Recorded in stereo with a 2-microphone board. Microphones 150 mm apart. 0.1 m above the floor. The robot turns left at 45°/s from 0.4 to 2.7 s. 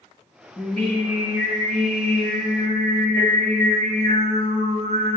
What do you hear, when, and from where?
0.6 s singing: 15° left, 4.5 m; by 5.2 s 80° right, 4.5 m